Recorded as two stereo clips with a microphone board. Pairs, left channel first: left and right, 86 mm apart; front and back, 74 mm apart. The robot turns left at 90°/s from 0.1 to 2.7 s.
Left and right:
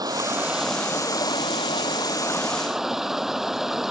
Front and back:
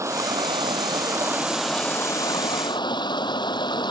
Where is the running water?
130° right; by 3.9 s 5° right.